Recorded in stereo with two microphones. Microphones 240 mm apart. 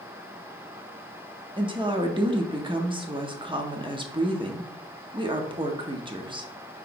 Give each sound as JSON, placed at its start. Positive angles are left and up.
{"t": 1.6, "sound": "a woman speaking", "side_deg": -20, "distance_m": 0.6}